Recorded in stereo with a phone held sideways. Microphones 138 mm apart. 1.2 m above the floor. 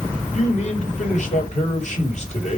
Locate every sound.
0.3 s a man speaking: 55° left (ahead or behind), 6 m